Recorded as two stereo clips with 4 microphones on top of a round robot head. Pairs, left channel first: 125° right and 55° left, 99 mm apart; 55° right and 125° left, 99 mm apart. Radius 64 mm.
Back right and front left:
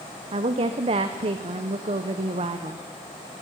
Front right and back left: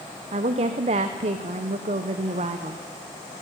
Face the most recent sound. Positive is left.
turn(degrees=90)